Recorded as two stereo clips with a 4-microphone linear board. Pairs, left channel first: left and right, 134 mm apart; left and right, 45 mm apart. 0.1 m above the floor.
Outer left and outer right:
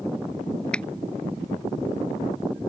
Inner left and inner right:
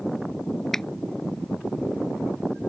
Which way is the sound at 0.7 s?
10° left (ahead or behind).